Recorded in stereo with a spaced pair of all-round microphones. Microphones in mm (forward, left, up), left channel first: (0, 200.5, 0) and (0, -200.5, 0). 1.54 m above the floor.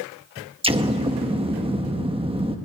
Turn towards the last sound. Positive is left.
turn(degrees=-15)  # may be behind; listen again after turning